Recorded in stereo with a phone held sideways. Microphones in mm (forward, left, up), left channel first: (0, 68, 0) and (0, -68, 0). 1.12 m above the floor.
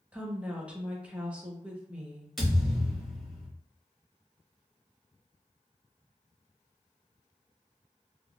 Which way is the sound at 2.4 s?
Centre (ahead or behind).